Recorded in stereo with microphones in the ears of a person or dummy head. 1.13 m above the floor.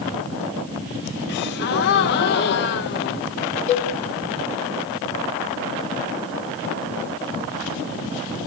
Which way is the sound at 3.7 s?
40° left (ahead or behind).